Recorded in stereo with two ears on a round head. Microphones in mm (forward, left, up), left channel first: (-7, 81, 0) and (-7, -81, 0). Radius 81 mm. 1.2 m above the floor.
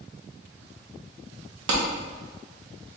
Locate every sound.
1.7 s a clap: 75° right (ahead or behind), 1.1 m